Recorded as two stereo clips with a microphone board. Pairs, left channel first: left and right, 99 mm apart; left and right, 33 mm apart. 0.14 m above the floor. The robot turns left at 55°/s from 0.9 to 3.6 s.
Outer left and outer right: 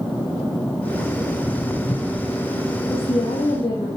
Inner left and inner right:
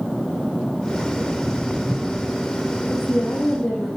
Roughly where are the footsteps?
Centre.